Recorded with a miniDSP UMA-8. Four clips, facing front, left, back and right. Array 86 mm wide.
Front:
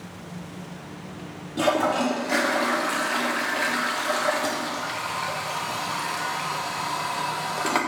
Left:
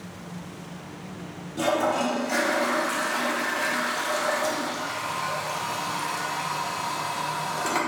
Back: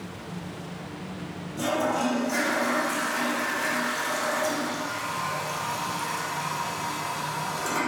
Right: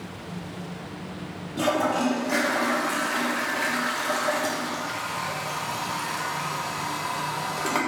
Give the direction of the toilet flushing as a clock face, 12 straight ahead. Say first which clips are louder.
Even, front 4 dB; 12 o'clock.